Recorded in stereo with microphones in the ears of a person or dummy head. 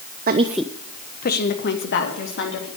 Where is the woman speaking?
50° right (ahead or behind), 0.6 m; by 2.7 s 60° left (ahead or behind), 3.5 m.